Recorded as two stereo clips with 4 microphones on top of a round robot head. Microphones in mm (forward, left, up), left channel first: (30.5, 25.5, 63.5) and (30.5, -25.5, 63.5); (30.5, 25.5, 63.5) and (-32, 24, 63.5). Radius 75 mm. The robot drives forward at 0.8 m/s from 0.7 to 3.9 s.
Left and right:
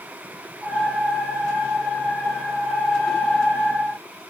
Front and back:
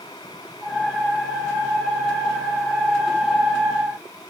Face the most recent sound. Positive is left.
No sound to turn to.